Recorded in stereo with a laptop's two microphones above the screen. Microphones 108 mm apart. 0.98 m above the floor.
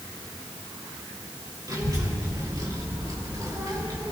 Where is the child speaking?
40° right (ahead or behind), 4 m; by 4.1 s 35° right (ahead or behind), 2.5 m.